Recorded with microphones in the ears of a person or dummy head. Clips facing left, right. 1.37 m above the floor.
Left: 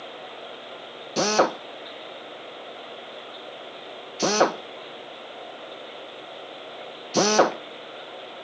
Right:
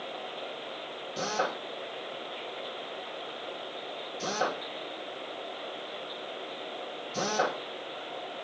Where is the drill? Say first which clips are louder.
Left 11 dB; 75° left (ahead or behind), 1.6 m.